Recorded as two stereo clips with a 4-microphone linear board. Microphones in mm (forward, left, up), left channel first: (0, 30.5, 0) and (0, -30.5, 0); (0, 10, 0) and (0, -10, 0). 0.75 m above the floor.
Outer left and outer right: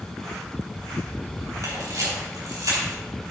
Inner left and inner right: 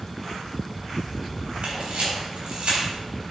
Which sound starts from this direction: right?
A camera shutter, at 1.6 s.